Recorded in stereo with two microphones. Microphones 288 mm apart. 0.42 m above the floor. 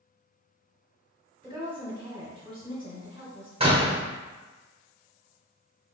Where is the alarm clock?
No alarm clock in this recording.